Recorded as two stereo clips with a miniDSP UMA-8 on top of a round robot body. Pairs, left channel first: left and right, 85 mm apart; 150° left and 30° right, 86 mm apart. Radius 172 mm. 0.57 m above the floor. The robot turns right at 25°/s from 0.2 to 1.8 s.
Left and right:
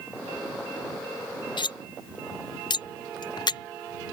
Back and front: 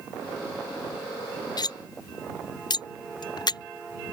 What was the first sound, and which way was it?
Cutlery clinking, 115° left.